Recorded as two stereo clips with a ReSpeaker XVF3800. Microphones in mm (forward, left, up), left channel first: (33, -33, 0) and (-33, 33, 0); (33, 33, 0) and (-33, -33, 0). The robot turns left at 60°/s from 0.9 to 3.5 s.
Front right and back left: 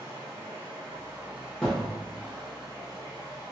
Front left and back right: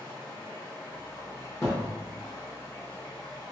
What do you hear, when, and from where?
0.0 s running water: 110° left, 1.9 m; by 3.5 s 50° right, 1.9 m
1.6 s a thud: 25° left, 0.9 m; by 1.9 s 10° left, 0.9 m